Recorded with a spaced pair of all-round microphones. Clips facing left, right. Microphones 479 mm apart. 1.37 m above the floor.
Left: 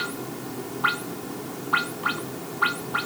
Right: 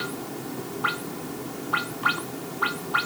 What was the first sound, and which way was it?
Only background noise.